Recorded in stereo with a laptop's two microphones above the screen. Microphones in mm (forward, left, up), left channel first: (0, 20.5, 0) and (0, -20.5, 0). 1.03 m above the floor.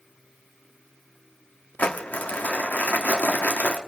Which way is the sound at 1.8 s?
40° left (ahead or behind).